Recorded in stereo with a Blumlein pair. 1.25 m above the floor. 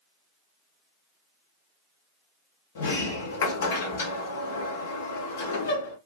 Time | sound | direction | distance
2.8 | a sliding door | 60° left | 0.9 m